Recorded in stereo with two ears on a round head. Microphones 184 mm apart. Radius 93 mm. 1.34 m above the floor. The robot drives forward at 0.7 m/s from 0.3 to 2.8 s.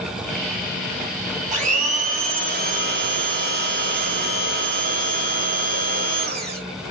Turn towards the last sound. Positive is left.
turn(degrees=-45)  # may be behind; listen again after turning